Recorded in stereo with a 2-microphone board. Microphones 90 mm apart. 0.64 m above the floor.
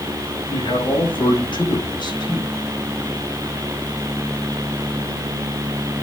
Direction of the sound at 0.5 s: 70° left (ahead or behind).